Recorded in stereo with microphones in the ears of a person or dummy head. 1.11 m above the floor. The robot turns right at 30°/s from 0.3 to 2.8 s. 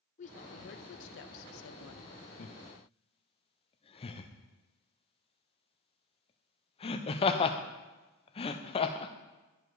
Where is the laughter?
40° left (ahead or behind), 0.5 m; by 9.1 s 25° left (ahead or behind), 0.5 m.